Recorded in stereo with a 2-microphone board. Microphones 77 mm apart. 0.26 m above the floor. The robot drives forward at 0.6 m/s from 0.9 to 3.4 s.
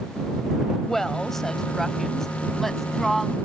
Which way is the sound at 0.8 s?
5° left (ahead or behind).